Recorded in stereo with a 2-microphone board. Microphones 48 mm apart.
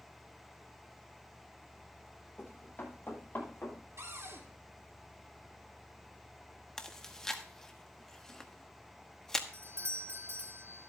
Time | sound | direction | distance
2.4 | running footsteps | 35° left (ahead or behind) | 10 m
4.0 | a cupboard door | 65° right (ahead or behind) | 2.5 m
6.8 | chewing | 10° left (ahead or behind) | 1.0 m
9.5 | a doorbell | 60° right (ahead or behind) | 0.8 m